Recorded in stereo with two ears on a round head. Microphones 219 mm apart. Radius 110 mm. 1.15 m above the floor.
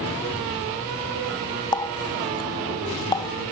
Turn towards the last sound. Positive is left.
turn(degrees=15)  # may be behind; listen again after turning